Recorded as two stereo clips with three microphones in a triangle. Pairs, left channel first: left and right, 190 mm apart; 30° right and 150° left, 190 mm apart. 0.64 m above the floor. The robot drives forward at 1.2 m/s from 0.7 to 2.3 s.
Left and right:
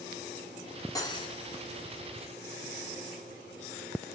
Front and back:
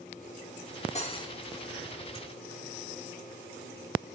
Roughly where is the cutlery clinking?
Ahead.